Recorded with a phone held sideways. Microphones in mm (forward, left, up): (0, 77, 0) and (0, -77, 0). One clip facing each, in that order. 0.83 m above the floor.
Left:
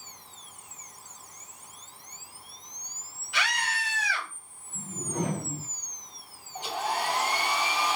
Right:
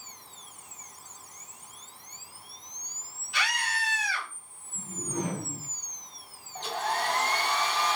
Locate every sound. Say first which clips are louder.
3.3 s a scream: left 1 dB; 70° left (ahead or behind), 3 m
4.8 s a whoosh: left 1 dB; 80° left, 2 m
6.5 s a hair dryer: even; 10° left (ahead or behind), 0.5 m